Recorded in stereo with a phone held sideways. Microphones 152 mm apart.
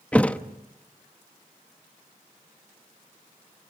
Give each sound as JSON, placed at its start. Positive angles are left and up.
{"t": 0.1, "sound": "a thud", "side_deg": 10, "distance_m": 0.8}